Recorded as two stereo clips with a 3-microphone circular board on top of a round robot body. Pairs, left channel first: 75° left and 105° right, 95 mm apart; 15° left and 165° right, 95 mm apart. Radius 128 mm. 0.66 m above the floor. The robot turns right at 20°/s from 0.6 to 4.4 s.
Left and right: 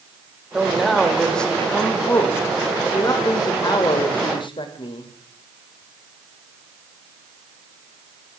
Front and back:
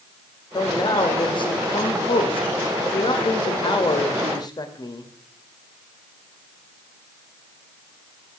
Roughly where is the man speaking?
Ahead.